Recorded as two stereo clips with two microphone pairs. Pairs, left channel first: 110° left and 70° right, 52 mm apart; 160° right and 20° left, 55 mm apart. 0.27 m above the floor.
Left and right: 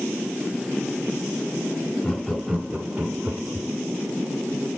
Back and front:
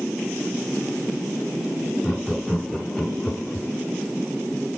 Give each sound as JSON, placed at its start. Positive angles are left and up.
{"t": 2.0, "sound": "laughter", "azimuth_deg": 80, "distance_m": 1.3}